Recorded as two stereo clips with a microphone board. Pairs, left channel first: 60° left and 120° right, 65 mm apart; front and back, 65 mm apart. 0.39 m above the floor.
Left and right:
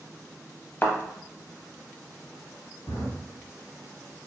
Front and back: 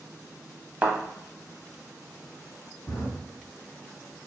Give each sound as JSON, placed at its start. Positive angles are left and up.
{"t": 0.8, "sound": "a thud", "azimuth_deg": 120, "distance_m": 0.6}
{"t": 2.9, "sound": "a drawer", "azimuth_deg": 50, "distance_m": 1.0}